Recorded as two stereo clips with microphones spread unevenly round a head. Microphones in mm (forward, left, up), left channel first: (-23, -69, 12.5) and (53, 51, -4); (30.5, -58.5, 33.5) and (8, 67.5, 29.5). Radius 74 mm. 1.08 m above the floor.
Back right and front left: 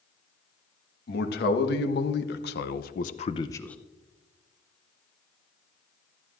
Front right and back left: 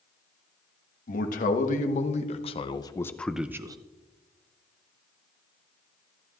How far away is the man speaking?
About 1.3 m.